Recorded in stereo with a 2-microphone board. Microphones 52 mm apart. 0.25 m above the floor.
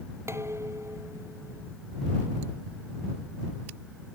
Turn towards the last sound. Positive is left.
turn(degrees=-55)  # may be behind; listen again after turning